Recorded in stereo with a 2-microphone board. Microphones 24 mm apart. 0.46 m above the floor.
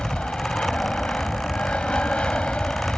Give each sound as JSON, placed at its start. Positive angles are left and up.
{"t": 0.0, "sound": "an aircraft", "side_deg": 55}